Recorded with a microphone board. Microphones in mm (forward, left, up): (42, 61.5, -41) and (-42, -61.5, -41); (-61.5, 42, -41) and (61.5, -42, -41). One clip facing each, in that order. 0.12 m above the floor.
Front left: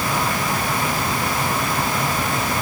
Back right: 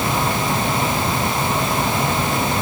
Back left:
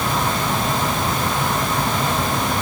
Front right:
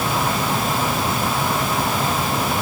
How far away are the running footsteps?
No running footsteps in this recording.